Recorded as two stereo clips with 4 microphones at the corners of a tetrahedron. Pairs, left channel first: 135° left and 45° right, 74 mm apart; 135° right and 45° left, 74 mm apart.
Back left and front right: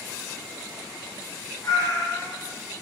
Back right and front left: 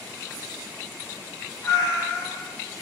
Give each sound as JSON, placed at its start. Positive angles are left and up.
{"t": 1.6, "sound": "a cat meowing", "azimuth_deg": 175, "distance_m": 0.6}